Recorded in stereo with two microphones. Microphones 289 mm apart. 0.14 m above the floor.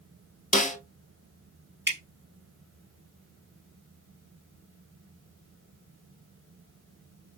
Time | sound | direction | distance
0.5 | a snare drum | 30° left (ahead or behind) | 1.0 m
1.9 | dripping | 40° right (ahead or behind) | 1.9 m